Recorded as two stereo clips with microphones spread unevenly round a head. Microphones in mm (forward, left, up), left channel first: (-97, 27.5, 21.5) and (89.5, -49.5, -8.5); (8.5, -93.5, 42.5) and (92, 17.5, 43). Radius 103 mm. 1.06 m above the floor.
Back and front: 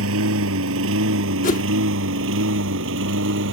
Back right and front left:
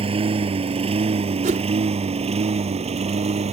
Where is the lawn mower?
5° left; by 3.5 s 10° left.